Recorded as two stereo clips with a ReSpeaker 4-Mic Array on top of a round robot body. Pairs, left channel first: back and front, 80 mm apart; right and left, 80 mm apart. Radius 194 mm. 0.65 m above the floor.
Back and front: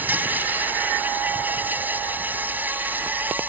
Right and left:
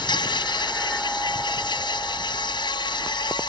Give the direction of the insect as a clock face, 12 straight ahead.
2 o'clock.